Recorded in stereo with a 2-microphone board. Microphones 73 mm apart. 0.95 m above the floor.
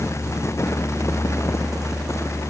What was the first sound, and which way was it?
Only background noise.